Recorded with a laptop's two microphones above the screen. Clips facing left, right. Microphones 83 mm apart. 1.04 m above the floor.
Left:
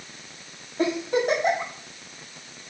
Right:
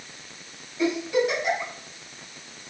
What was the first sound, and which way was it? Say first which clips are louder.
A giggle: even; 55° left (ahead or behind).